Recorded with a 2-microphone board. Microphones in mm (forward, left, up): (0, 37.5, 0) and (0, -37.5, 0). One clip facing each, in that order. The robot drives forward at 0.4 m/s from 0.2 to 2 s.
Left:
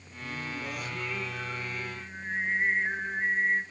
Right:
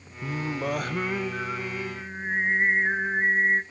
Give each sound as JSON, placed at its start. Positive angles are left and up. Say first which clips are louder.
{"t": 0.2, "sound": "singing", "louder": "right 7 dB", "side_deg": -60, "distance_m": 0.7}